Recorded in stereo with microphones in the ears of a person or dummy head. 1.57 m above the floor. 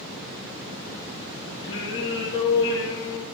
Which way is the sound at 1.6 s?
25° left (ahead or behind).